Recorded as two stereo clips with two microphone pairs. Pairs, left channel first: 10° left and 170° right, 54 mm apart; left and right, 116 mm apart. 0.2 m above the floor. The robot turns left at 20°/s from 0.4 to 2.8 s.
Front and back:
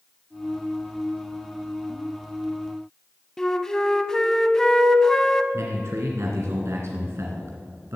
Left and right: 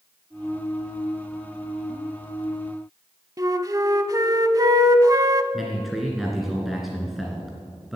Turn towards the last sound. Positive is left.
turn(degrees=180)